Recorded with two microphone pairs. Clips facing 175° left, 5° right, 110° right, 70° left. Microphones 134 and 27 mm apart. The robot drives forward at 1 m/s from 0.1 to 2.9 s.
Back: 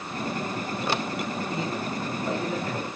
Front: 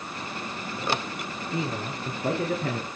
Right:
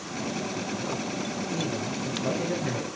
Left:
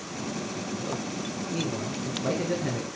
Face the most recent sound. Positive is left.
turn(degrees=0)